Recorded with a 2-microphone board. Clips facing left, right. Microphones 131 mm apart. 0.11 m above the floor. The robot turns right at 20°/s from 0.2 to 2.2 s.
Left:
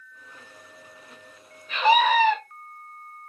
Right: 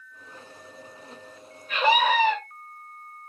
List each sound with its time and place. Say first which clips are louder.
1.7 s a scream: left 2 dB; 45° right (ahead or behind), 4.5 m; by 2.4 s 35° right (ahead or behind), 4.5 m